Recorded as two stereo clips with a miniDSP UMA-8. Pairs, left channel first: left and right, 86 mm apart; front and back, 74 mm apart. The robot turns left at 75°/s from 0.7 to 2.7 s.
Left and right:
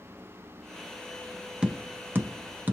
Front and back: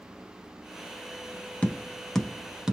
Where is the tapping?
35° right, 0.6 m; by 2.7 s 115° right, 0.6 m.